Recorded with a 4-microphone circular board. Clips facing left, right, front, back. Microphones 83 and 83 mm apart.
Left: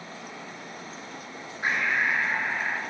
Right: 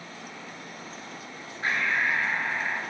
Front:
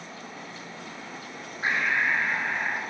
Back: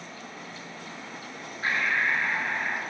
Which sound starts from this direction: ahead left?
Breathing, at 1.6 s.